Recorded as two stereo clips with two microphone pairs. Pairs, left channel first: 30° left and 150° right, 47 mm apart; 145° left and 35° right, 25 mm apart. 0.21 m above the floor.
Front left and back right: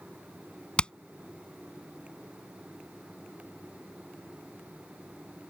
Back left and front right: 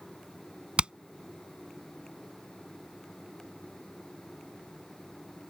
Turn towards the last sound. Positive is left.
turn(degrees=-25)